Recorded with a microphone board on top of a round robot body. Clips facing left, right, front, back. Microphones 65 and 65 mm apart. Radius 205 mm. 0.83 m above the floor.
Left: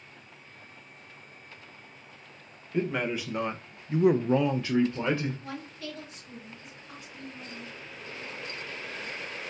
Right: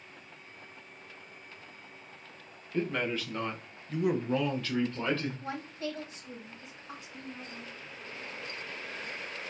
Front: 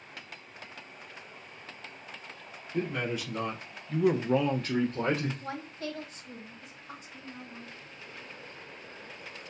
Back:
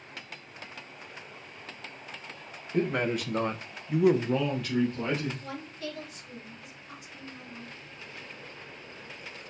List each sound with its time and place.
2.7 s a man speaking: 165° left, 1.1 m; by 5.3 s 15° left, 0.9 m
5.4 s a woman speaking: 40° right, 1.5 m